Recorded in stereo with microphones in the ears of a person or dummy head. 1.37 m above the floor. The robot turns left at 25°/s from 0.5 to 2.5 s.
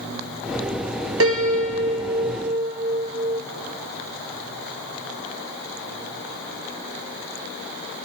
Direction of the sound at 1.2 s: 95° right.